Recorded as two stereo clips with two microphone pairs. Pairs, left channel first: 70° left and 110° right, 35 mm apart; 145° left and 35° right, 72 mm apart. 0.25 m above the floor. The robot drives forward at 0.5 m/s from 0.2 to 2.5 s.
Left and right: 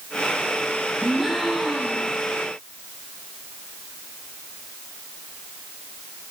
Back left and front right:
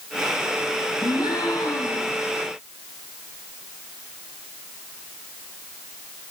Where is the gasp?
160° left, 4 m; by 2.2 s 165° left, 5 m.